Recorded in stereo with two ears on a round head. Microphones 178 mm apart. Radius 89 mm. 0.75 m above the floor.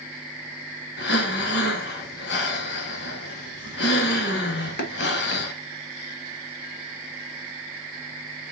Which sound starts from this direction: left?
Breathing, at 1.0 s.